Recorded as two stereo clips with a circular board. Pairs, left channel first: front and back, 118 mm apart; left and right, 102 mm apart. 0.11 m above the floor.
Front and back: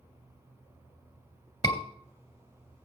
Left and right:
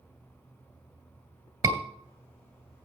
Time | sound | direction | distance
1.6 | a scream | 40° right | 2 m